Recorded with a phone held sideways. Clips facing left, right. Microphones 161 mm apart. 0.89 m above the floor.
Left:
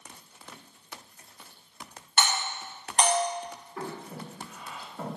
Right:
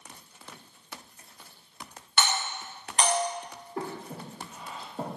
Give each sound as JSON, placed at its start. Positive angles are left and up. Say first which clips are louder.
{"t": 2.2, "sound": "a doorbell", "louder": "even", "side_deg": 50, "distance_m": 1.2}
{"t": 3.8, "sound": "breathing", "louder": "right 2 dB", "side_deg": -35, "distance_m": 0.5}